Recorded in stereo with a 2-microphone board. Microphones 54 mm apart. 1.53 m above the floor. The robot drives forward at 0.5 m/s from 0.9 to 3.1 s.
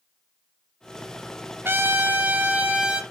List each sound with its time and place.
1.6 s a trumpet: 45° right (ahead or behind), 0.8 m; by 3.0 s 25° right (ahead or behind), 1.4 m